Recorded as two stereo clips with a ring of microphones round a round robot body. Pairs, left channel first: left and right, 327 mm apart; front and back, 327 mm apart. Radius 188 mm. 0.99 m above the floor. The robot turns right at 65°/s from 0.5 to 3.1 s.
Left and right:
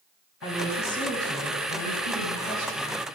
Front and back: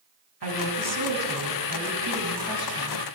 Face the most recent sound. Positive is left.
turn(degrees=-50)